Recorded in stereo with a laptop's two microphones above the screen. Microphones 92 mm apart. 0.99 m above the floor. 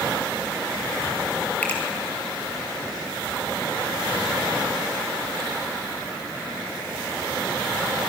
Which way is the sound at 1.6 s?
15° left (ahead or behind).